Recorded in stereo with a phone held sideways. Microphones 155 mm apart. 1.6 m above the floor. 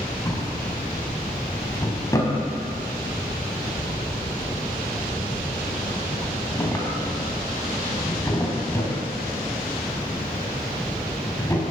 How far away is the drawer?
About 4.5 m.